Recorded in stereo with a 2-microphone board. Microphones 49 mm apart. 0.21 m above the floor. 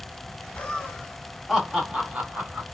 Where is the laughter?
20° left (ahead or behind), 1.2 m; by 2.6 s 35° right (ahead or behind), 1.2 m.